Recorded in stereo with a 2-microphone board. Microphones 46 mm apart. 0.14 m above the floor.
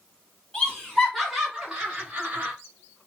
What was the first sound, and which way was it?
Laughter, 20° left (ahead or behind).